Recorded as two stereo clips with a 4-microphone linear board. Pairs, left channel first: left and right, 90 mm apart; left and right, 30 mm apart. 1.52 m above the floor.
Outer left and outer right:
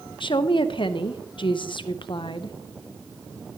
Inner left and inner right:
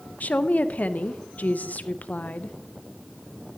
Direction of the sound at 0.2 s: 65° left (ahead or behind).